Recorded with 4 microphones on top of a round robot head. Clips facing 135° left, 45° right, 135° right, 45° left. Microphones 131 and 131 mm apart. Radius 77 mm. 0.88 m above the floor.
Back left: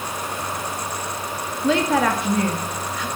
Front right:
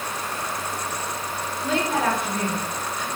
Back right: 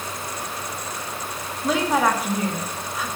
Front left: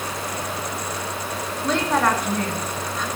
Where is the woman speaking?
140° left, 1.9 m.